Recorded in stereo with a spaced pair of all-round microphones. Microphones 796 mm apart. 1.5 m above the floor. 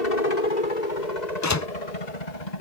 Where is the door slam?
25° left (ahead or behind).